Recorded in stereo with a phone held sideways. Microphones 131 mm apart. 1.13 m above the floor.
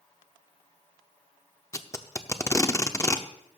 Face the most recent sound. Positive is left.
turn(degrees=20)  # may be behind; listen again after turning